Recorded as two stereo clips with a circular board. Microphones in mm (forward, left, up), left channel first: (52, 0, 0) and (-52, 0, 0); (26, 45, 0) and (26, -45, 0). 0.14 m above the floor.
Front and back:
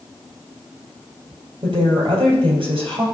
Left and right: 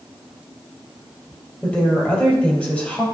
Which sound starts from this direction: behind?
A woman speaking, at 1.6 s.